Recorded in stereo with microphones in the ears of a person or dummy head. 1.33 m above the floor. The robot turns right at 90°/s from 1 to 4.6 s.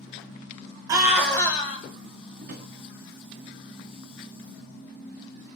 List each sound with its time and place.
0.9 s a scream: 25° right, 0.9 m; by 1.8 s 50° left, 0.9 m
2.4 s a drawer: 70° right (ahead or behind), 1.3 m; by 2.7 s 55° right (ahead or behind), 1.3 m